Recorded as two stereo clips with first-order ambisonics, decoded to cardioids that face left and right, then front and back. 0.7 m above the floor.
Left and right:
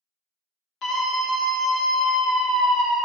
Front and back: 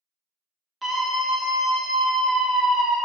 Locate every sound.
0.8 s a scream: 110° left, 0.8 m; by 3.0 s 170° right, 1.6 m